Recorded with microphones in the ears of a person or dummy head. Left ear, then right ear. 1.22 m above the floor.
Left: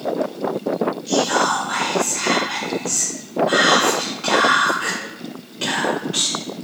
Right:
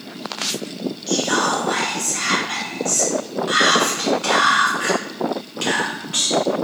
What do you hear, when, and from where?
1.1 s whispering: 25° right (ahead or behind), 1.3 m